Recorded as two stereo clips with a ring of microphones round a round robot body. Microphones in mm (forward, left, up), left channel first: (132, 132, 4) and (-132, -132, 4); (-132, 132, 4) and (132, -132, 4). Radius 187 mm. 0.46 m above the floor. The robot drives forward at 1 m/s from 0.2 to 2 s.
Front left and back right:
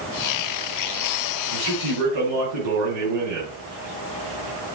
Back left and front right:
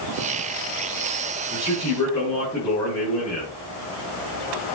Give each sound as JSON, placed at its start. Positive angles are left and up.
{"t": 1.5, "sound": "a man speaking", "azimuth_deg": -140, "distance_m": 6.0}